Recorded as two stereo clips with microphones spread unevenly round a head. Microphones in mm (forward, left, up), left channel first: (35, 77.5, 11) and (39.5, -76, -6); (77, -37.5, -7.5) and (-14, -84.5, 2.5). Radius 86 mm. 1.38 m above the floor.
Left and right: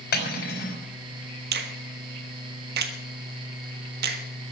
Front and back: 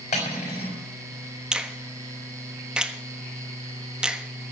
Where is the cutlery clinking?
75° left, 4 m.